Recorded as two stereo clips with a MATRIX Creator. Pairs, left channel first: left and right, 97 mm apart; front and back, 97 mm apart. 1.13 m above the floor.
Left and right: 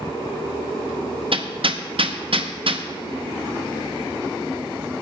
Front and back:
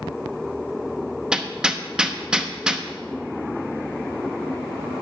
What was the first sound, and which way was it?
Hammering, 100° right.